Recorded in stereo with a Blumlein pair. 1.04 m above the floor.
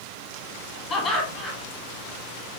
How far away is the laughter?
About 1.4 m.